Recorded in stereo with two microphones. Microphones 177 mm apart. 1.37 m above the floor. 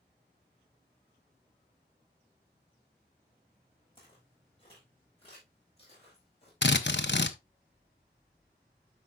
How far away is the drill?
About 0.7 m.